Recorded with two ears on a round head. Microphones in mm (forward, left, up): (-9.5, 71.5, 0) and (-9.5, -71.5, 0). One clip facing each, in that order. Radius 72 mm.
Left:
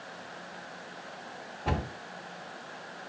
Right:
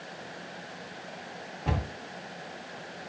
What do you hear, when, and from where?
1.6 s a cupboard door: centre (ahead or behind), 1.8 m